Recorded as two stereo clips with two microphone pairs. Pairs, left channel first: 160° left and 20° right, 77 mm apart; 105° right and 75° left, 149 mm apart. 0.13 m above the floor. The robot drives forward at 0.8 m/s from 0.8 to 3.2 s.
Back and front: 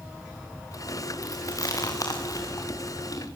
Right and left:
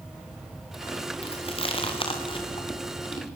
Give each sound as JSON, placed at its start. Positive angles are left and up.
{"t": 1.2, "sound": "chewing", "azimuth_deg": -160, "distance_m": 4.0}